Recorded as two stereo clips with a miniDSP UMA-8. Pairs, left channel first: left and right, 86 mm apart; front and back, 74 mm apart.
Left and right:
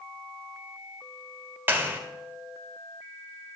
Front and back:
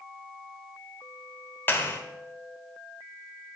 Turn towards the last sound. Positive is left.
turn(degrees=-45)